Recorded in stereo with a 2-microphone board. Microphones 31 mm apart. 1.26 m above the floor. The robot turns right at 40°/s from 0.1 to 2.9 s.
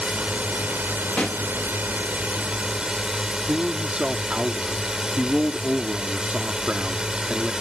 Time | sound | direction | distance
0.0 | a drone | 135° right | ?
1.2 | a pop | 35° left (ahead or behind) | ?
3.5 | a man speaking | 40° right (ahead or behind) | ?